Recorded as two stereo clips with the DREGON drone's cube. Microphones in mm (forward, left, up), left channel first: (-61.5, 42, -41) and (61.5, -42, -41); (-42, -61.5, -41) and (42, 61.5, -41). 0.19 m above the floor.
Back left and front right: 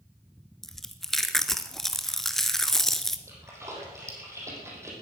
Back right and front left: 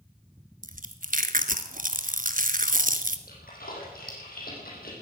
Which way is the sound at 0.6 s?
60° left.